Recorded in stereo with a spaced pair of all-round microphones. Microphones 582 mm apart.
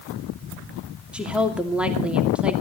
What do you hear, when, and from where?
1.1 s a woman speaking: centre (ahead or behind), 2.5 m